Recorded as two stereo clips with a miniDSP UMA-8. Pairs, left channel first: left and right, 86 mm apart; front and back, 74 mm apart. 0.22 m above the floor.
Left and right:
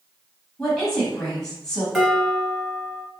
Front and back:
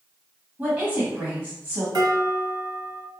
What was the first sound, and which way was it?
A woman speaking, 160° left.